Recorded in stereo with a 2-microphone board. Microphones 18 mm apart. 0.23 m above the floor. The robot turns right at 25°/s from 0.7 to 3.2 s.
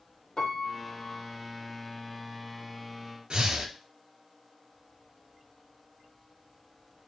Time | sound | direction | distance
0.4 | a piano | 45° left (ahead or behind) | 1.4 m
3.3 | breathing | 55° right (ahead or behind) | 0.9 m